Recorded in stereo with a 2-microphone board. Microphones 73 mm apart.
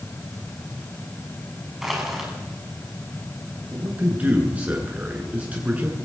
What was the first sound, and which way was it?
Crushing, 5° right (ahead or behind).